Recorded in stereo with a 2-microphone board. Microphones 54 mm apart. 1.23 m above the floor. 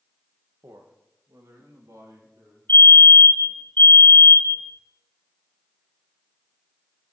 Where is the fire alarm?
40° left (ahead or behind), 1.8 m.